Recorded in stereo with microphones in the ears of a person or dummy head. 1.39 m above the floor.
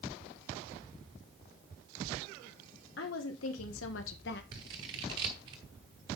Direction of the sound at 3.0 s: 65° left (ahead or behind).